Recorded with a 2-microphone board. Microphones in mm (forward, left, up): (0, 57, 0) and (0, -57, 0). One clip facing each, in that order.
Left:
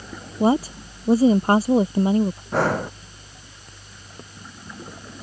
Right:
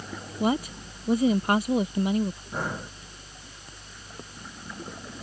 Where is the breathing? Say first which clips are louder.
Left 11 dB; 80° left.